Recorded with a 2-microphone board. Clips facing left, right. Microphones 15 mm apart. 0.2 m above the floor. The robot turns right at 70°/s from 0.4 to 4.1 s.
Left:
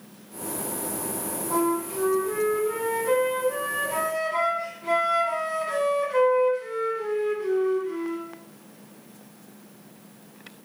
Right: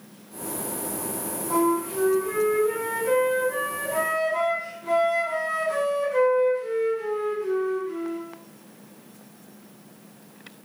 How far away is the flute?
About 1.0 m.